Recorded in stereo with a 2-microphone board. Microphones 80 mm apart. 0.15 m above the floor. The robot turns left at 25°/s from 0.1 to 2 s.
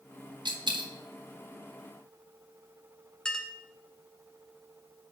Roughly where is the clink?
Centre.